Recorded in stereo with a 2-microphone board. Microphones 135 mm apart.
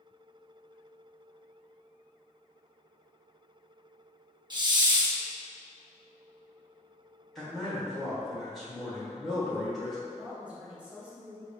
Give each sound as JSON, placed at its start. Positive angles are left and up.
{"t": 4.5, "sound": "a hiss", "side_deg": -35, "distance_m": 0.6}
{"t": 7.3, "sound": "a man speaking", "side_deg": 0, "distance_m": 1.2}
{"t": 10.1, "sound": "a woman speaking", "side_deg": -10, "distance_m": 1.0}